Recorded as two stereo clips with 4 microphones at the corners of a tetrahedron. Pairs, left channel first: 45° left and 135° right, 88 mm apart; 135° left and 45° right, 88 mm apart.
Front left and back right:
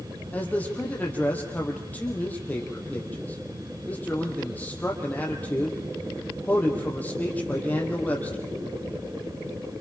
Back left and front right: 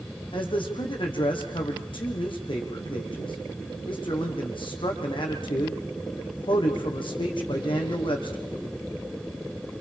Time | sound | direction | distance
0.3 | a man speaking | 115° left | 5 m